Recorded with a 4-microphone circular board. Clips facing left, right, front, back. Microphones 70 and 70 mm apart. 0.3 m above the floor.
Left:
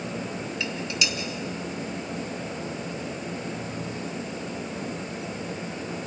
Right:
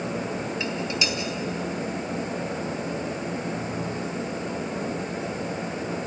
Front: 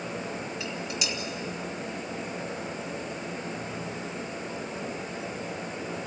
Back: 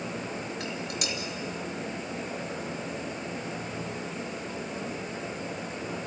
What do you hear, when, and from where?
0.6 s dishes clattering: 150° right, 2.5 m